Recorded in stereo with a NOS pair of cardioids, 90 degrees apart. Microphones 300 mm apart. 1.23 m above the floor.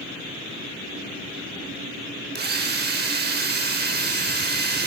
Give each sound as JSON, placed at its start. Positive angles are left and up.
{"t": 2.4, "sound": "a drill", "azimuth_deg": -35, "distance_m": 6.0}